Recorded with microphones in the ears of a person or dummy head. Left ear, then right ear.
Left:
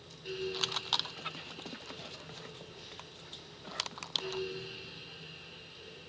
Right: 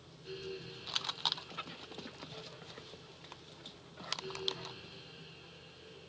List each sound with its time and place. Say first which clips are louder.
0.0 s a fan: left 7 dB; 25° left (ahead or behind), 1.0 m